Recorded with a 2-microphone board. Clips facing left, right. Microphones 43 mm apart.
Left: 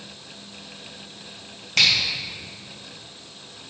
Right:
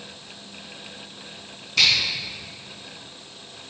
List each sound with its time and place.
1.8 s a finger snap: 75° left (ahead or behind), 2.5 m